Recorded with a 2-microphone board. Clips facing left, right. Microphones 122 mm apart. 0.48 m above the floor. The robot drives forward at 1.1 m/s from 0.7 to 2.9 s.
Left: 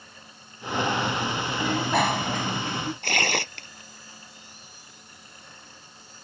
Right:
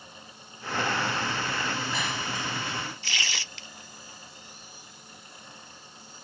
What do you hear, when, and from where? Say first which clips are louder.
1.6 s a bicycle bell: left 8 dB; 70° left (ahead or behind); by 2.9 s 50° left (ahead or behind)
3.0 s tearing paper: left 10 dB; 55° left (ahead or behind)